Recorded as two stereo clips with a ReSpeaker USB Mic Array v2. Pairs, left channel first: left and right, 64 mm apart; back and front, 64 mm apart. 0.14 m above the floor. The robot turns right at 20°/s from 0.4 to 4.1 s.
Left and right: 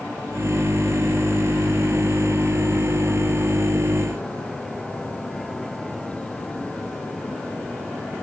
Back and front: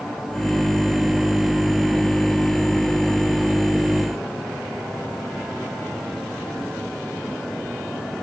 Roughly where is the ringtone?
No ringtone in this recording.